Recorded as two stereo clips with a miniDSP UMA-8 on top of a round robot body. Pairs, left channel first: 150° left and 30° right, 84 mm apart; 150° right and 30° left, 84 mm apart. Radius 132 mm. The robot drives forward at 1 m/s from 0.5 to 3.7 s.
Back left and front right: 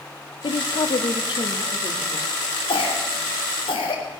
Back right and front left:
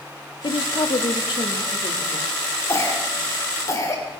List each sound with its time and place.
0.4 s a woman speaking: straight behind, 0.8 m
2.7 s a cough: 155° left, 3 m; by 4.0 s 160° left, 4 m